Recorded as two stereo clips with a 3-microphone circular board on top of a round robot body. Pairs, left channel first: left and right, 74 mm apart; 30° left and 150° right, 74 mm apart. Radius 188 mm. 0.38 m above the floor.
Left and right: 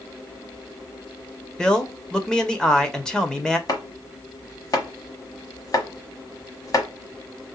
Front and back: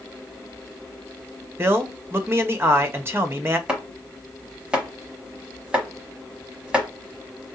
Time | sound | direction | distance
1.6 | a man speaking | 165° left | 1.4 m
3.7 | chopping | 130° left | 1.3 m